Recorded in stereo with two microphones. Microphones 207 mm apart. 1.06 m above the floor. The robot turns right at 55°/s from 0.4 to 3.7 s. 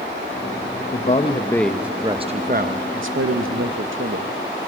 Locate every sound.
0.9 s a man speaking: 135° left, 0.7 m; by 4.3 s 70° right, 0.7 m